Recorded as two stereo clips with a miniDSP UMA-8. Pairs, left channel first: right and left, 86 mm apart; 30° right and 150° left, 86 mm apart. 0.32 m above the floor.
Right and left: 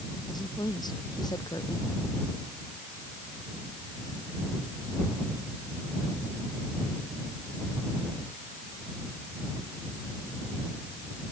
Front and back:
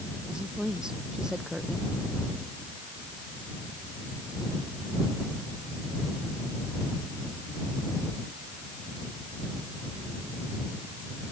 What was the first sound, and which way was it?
A woman speaking, 130° right.